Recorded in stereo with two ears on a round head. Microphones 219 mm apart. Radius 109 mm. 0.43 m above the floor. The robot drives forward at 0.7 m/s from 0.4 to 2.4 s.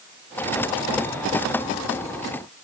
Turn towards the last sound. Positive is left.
No sound to turn to.